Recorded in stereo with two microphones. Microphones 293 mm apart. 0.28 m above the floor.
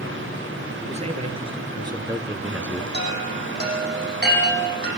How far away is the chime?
About 8 m.